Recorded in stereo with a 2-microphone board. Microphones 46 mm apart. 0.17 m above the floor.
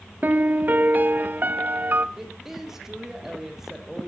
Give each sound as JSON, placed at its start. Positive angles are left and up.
{"t": 0.2, "sound": "a piano", "side_deg": -40, "distance_m": 0.7}
{"t": 2.2, "sound": "a woman speaking", "side_deg": -10, "distance_m": 6.5}